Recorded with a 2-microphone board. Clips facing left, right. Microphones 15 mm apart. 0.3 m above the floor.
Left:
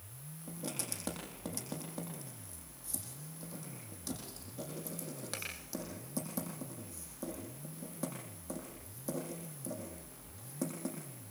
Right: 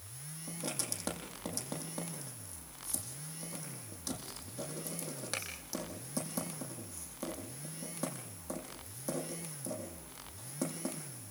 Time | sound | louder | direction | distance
0.5 | writing | right 2 dB | 15° right (ahead or behind) | 8.5 m